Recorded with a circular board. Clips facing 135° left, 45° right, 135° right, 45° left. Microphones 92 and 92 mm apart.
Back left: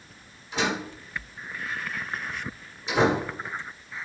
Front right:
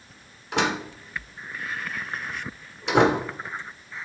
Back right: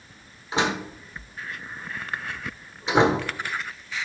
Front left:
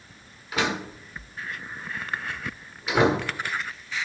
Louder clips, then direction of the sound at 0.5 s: Front right 3 dB, back right 2 dB; 70° right.